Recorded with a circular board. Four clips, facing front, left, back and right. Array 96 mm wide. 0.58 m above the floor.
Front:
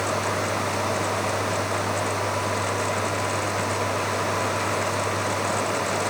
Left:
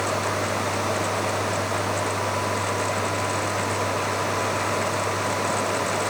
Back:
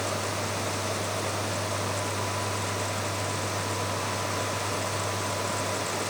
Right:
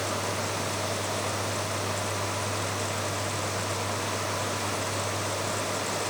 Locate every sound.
Only background noise.